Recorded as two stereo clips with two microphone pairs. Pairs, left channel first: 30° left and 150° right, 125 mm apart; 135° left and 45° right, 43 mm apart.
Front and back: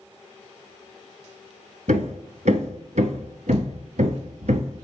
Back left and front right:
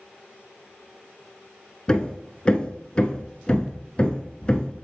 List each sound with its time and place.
1.9 s hammering: 155° right, 1.0 m